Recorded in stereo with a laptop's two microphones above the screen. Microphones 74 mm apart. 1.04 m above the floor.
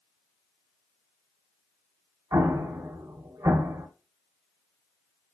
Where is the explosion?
55° right (ahead or behind), 0.7 m.